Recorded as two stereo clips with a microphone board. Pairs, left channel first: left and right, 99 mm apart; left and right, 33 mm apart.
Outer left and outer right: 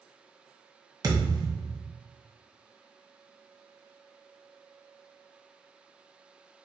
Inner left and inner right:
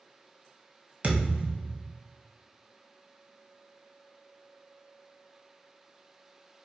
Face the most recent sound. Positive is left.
turn(degrees=-45)  # may be behind; listen again after turning